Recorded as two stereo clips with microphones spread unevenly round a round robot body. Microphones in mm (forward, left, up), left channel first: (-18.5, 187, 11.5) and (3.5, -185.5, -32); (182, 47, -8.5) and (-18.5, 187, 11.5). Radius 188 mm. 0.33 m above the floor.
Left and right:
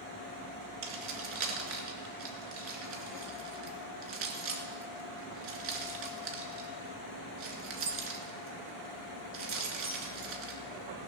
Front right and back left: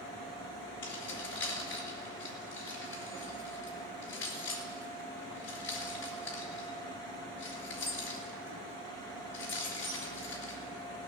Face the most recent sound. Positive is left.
turn(degrees=-75)